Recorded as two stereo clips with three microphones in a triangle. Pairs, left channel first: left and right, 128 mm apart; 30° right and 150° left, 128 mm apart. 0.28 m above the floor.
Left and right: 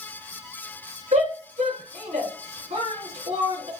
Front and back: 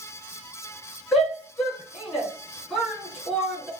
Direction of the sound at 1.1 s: 125° right.